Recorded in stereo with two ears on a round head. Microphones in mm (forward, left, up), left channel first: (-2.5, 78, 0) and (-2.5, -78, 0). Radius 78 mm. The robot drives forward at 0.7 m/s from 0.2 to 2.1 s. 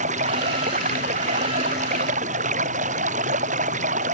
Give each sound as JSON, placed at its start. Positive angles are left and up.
{"t": 0.0, "sound": "running water", "side_deg": -45}